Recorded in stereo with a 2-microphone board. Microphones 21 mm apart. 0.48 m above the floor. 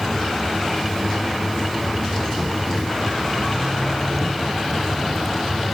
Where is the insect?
30° left (ahead or behind), 6.5 m.